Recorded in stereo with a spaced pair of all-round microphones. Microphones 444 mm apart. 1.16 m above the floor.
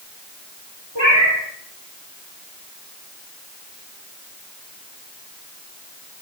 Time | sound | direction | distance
0.9 | a cat meowing | 75° right (ahead or behind) | 4 m